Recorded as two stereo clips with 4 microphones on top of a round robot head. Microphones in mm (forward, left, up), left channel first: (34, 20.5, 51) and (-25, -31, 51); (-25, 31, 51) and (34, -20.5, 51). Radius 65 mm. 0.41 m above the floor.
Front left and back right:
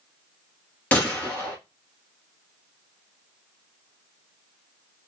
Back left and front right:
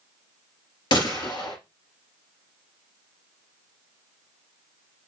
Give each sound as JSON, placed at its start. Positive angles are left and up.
{"t": 0.9, "sound": "a gunshot", "azimuth_deg": 115, "distance_m": 2.5}